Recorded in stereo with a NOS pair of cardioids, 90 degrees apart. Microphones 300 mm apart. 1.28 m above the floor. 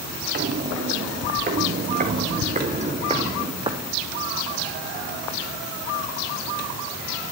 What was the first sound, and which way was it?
Footsteps, 35° right.